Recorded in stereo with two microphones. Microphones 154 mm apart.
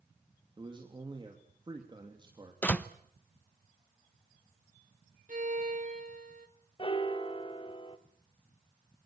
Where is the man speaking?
30° right (ahead or behind), 3 m.